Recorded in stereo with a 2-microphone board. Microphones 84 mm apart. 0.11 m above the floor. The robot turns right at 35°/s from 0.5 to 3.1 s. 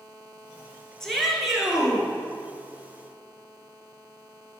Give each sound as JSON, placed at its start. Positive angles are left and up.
{"t": 1.0, "sound": "a shout", "azimuth_deg": 170, "distance_m": 1.5}